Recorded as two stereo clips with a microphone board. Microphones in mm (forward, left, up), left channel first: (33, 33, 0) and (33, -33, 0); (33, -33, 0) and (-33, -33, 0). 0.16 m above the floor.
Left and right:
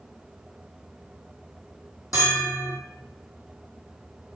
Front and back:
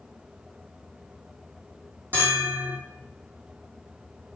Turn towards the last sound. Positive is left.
turn(degrees=120)